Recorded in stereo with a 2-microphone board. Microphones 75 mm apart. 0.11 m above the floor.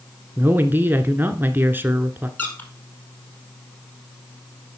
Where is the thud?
No thud in this recording.